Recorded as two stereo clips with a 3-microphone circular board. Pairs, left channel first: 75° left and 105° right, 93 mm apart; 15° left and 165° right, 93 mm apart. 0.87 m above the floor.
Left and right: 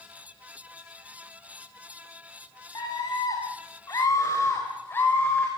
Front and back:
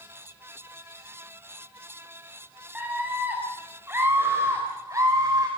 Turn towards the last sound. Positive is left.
turn(degrees=145)